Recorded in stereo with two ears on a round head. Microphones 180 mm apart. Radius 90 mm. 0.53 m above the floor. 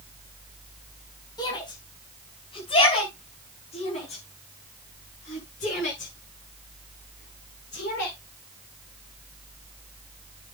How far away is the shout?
About 4.5 m.